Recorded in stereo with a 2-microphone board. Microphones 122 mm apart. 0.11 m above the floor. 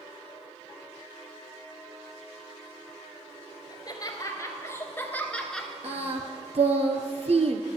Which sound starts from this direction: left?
Laughter, at 3.7 s.